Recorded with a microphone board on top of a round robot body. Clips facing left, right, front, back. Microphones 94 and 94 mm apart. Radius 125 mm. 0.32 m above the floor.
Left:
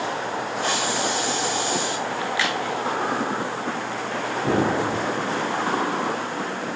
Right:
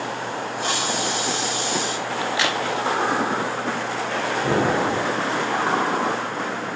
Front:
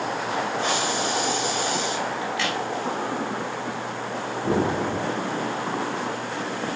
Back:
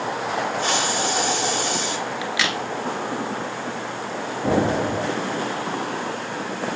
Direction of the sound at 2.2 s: 160° right.